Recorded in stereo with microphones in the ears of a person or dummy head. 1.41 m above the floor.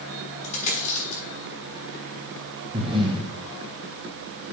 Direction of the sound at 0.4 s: 35° left (ahead or behind).